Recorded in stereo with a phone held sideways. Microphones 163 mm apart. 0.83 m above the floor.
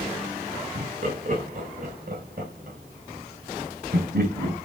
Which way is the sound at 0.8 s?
45° right (ahead or behind).